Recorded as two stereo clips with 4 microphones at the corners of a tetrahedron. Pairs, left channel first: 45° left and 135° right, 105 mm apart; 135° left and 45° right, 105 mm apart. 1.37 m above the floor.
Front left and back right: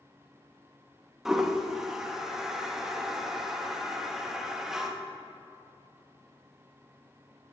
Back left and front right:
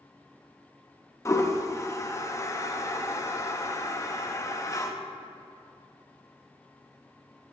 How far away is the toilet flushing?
About 0.7 m.